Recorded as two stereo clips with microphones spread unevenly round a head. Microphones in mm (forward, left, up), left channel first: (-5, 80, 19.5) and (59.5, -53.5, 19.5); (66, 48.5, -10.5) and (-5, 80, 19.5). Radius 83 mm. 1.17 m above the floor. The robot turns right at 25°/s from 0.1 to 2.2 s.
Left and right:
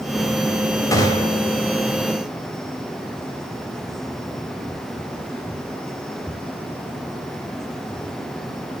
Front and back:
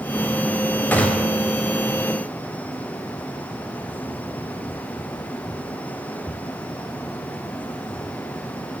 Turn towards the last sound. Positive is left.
turn(degrees=80)